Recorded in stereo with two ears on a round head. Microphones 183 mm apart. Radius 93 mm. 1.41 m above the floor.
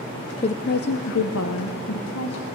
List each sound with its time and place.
0.4 s a woman speaking: 30° left (ahead or behind), 0.6 m; by 2.5 s 85° left, 1.8 m